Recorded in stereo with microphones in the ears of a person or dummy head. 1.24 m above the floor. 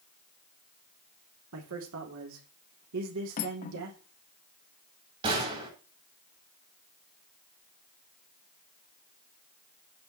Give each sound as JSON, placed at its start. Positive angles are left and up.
{"t": 1.5, "sound": "a man speaking", "side_deg": -70, "distance_m": 3.5}
{"t": 3.4, "sound": "cutlery clinking", "side_deg": 45, "distance_m": 1.0}
{"t": 5.2, "sound": "a gunshot", "side_deg": -30, "distance_m": 5.5}